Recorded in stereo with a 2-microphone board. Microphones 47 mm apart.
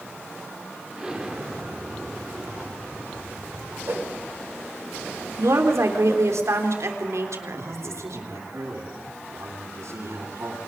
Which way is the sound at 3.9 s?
60° right (ahead or behind).